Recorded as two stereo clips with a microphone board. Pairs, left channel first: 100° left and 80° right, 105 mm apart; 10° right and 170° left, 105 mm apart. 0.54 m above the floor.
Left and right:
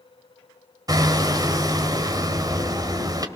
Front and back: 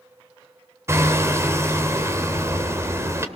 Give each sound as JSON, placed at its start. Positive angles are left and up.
{"t": 0.9, "sound": "hammering", "azimuth_deg": -130, "distance_m": 2.0}